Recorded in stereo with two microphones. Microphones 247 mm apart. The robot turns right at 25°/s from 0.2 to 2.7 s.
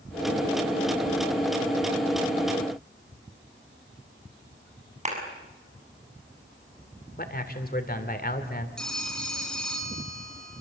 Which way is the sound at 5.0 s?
30° right (ahead or behind).